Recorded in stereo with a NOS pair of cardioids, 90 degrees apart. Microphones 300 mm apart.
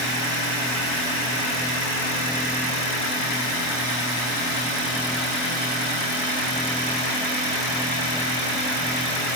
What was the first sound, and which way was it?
Only background noise.